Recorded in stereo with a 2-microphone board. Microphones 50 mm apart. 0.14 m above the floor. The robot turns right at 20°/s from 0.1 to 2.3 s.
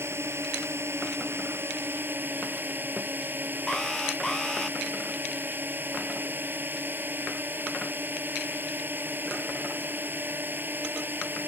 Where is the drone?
95° right; by 11.5 s 50° right.